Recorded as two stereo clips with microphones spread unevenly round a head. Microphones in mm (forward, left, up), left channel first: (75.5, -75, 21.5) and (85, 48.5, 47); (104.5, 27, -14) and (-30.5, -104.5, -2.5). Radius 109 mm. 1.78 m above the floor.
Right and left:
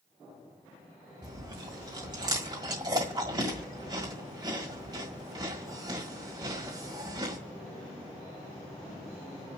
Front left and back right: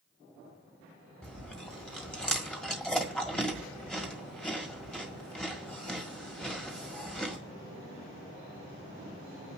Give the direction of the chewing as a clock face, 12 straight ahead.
8 o'clock.